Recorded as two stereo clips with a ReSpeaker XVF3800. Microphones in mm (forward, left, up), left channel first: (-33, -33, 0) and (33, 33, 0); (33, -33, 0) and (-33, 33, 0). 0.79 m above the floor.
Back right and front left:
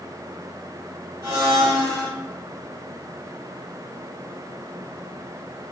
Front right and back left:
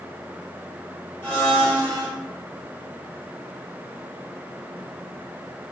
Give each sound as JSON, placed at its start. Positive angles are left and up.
{"t": 1.2, "sound": "a blender", "azimuth_deg": 5, "distance_m": 1.2}